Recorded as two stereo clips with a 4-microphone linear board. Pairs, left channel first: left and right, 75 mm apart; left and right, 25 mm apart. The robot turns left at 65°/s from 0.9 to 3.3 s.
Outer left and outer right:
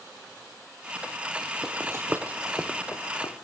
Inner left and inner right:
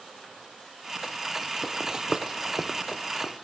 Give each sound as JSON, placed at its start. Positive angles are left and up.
{"t": 1.6, "sound": "running footsteps", "side_deg": -5, "distance_m": 0.7}